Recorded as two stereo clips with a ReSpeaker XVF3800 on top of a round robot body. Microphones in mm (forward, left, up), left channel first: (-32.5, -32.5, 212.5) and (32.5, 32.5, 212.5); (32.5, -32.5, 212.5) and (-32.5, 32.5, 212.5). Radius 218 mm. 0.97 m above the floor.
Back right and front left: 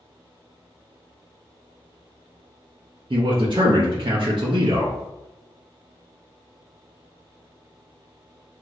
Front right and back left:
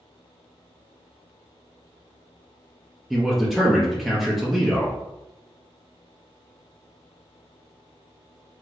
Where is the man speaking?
45° left, 0.7 m.